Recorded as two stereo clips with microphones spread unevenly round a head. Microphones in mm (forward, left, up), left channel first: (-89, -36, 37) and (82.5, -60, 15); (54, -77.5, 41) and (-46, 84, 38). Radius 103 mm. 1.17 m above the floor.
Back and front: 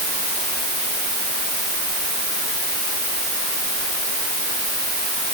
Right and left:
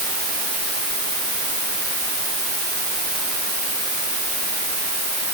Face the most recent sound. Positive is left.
No sound to turn to.